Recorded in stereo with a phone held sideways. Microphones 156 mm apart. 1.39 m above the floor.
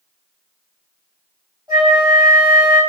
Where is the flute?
25° right (ahead or behind), 1.6 m.